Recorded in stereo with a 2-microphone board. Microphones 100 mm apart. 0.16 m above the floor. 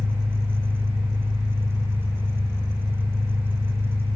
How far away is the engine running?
About 7 m.